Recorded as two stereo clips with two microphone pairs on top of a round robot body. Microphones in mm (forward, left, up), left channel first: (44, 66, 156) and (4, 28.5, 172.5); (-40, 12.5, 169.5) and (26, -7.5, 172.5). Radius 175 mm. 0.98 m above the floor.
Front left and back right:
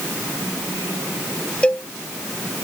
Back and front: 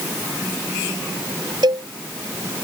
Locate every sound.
1.6 s a cowbell: 30° right